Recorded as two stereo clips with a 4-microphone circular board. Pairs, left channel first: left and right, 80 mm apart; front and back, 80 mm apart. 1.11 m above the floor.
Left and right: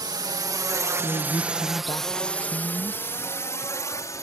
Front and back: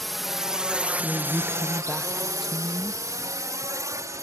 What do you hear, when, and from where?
0.0 s a drone: 90° right; by 4.2 s 135° left
1.0 s a woman speaking: 90° left